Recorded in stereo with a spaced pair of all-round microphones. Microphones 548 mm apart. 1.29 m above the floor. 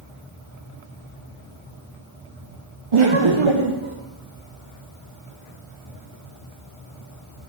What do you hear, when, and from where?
2.9 s laughter: 60° right (ahead or behind), 0.7 m; by 4.0 s 55° right (ahead or behind), 1.3 m